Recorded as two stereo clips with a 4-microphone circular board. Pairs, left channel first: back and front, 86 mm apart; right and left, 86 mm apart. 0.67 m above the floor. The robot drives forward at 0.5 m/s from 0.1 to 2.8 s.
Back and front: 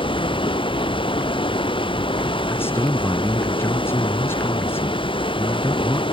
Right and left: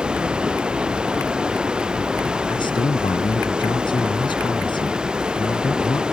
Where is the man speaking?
115° right.